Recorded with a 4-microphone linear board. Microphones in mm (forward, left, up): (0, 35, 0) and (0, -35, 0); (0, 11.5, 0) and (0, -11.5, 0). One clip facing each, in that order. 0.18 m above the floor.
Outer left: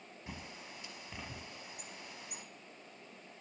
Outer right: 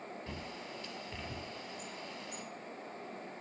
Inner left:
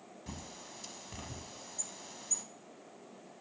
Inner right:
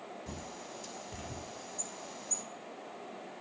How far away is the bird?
About 0.8 m.